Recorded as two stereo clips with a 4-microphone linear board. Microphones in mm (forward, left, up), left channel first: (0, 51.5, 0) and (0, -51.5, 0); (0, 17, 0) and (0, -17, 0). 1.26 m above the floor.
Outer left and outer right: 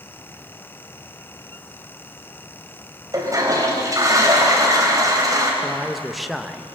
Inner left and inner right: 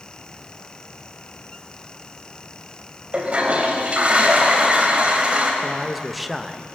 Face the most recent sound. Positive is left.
turn(degrees=0)  # may be behind; listen again after turning